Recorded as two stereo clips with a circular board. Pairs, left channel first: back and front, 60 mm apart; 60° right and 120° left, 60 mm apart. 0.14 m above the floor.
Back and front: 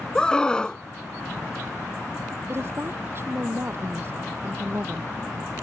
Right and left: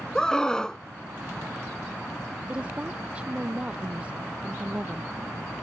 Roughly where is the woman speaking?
Ahead left.